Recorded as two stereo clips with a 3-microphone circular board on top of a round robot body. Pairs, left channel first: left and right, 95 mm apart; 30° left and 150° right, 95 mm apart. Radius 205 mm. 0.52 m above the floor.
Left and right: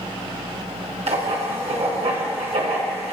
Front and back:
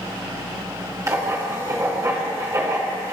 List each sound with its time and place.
1.1 s writing: 90° right, 1.7 m